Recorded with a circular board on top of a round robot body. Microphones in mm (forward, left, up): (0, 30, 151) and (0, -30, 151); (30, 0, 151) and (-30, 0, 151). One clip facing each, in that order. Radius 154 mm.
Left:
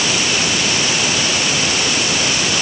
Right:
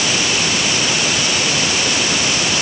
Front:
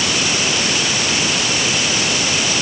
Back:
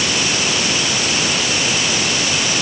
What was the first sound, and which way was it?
Only background noise.